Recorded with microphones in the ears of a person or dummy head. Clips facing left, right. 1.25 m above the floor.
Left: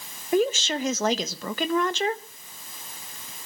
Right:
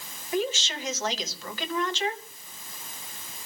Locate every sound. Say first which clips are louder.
0.3 s a woman speaking: left 6 dB; 50° left (ahead or behind), 1.1 m